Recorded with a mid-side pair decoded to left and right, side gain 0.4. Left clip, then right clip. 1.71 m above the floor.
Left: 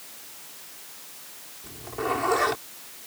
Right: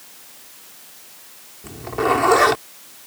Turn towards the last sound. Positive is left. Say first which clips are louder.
# right 9 dB
turn(degrees=-65)